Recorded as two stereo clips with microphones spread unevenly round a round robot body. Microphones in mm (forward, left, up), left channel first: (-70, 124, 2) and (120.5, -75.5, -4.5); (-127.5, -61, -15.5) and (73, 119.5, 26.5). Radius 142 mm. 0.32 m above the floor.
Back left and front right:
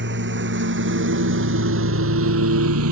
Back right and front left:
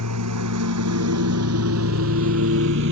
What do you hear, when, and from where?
0.0 s a lawn mower: 5° left; by 2.9 s 10° right